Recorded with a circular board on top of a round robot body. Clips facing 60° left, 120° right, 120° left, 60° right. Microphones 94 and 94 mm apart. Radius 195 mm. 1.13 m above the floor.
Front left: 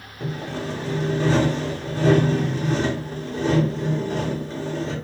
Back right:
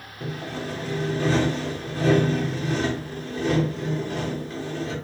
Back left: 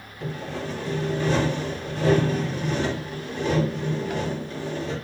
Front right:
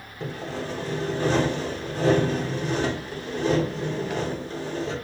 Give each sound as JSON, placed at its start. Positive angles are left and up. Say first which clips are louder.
{"t": 0.2, "sound": "sawing", "louder": "front left 3 dB, even", "azimuth_deg": -5, "distance_m": 2.0}